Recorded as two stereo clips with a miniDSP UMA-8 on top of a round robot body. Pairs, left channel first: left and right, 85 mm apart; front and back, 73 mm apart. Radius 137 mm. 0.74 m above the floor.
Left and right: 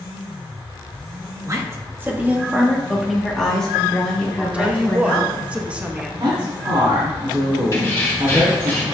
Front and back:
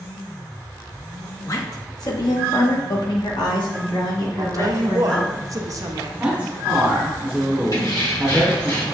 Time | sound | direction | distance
1.4 | a woman speaking | 40° right | 1.4 m
4.4 | a woman speaking | 160° right | 0.9 m
6.2 | a man speaking | 110° right | 2.5 m
7.7 | keys jangling | 35° left | 2.5 m